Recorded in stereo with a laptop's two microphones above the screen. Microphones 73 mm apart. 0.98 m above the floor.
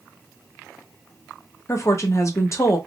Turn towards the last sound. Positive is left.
turn(degrees=40)  # may be behind; listen again after turning